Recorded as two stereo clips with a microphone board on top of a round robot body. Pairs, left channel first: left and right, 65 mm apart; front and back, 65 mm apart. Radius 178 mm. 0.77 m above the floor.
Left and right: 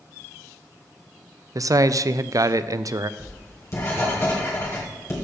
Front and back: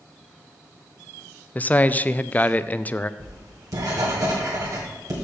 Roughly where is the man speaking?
Ahead right.